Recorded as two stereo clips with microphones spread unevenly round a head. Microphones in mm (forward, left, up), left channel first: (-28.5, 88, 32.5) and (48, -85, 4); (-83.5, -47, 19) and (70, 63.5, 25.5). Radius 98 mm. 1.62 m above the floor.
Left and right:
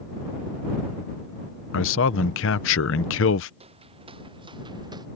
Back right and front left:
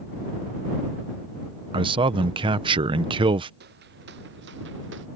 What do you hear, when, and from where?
1.7 s a man speaking: 100° left
3.6 s footsteps: 5° right; by 5.1 s 5° left